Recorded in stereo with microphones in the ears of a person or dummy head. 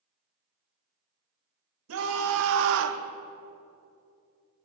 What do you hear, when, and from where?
1.9 s a scream: 80° right, 1.6 m; by 3.0 s 70° right (ahead or behind), 0.7 m